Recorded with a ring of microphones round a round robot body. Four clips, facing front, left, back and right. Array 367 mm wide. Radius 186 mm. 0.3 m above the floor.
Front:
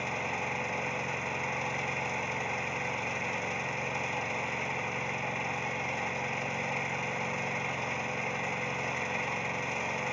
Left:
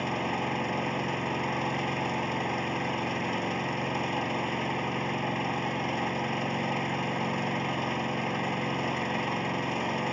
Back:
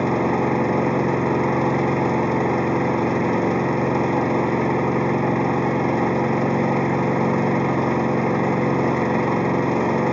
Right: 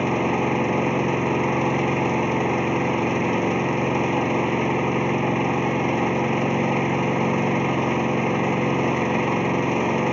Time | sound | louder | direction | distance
0.0 | an engine running | right 9 dB, back 16 dB | 150° right | ?